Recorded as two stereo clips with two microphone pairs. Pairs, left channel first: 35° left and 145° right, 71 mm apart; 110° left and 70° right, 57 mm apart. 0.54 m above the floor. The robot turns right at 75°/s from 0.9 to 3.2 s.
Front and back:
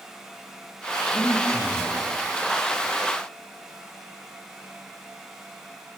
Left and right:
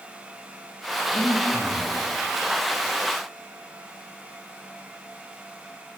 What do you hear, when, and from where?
1.1 s breathing: 55° left, 1.3 m; by 1.9 s 115° left, 1.3 m